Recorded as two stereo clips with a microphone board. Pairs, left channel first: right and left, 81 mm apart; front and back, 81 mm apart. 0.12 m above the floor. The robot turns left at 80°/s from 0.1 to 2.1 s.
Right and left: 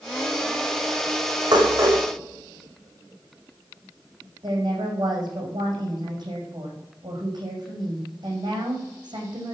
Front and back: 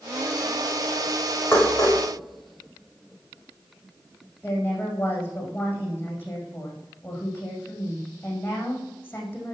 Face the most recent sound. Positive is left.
turn(degrees=60)